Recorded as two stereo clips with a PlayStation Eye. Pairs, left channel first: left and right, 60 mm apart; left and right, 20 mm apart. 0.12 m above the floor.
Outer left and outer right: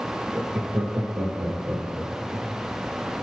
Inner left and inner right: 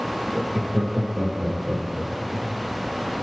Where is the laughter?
40° right (ahead or behind), 4 m; by 2.5 s 60° right (ahead or behind), 5.5 m.